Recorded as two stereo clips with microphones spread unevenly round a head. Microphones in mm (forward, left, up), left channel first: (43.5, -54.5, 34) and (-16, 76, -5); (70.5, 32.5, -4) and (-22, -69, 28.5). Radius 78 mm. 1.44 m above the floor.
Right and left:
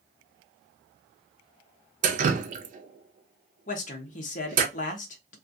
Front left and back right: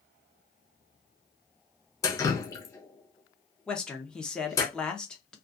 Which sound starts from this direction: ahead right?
A man speaking, at 3.7 s.